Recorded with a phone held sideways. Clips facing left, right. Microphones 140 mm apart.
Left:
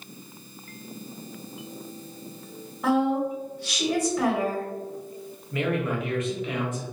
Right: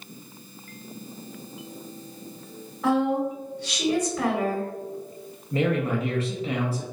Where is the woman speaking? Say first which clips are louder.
Even; centre (ahead or behind), 1.2 m.